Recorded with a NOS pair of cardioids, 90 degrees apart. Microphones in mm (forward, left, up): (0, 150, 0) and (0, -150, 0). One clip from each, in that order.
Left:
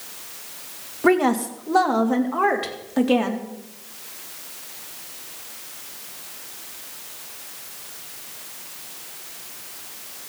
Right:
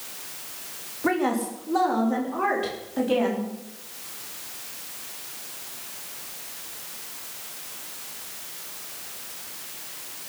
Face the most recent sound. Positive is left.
turn(degrees=45)